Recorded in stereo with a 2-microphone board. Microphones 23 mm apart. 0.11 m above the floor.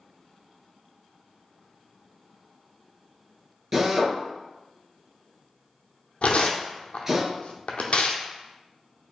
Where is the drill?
15° right (ahead or behind), 1.1 m.